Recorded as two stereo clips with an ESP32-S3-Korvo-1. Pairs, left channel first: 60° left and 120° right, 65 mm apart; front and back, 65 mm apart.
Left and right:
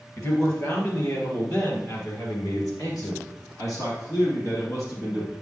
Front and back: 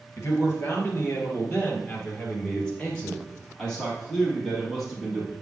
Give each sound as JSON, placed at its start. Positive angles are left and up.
{"t": 0.2, "sound": "a man speaking", "azimuth_deg": 40, "distance_m": 3.0}